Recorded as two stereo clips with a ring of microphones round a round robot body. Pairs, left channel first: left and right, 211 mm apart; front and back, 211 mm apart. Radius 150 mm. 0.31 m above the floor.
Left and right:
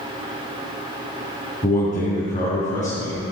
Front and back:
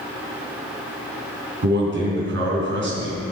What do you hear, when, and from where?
1.6 s a man speaking: 155° left, 3.5 m